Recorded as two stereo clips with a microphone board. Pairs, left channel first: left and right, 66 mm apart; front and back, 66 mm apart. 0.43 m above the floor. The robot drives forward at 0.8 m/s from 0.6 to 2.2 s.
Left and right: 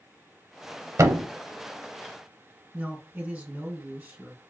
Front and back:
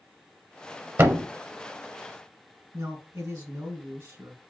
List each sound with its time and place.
1.0 s a thud: 130° right, 0.5 m; by 1.3 s 145° right, 0.7 m
2.7 s a man speaking: 155° right, 1.8 m